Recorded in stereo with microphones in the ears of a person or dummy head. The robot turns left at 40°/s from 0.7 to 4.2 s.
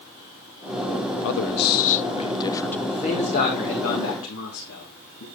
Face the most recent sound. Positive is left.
turn(degrees=105)